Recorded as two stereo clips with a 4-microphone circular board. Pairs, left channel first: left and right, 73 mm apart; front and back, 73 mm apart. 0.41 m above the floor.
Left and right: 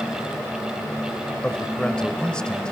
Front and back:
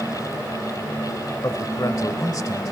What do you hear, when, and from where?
1.4 s a man speaking: 15° left, 1.4 m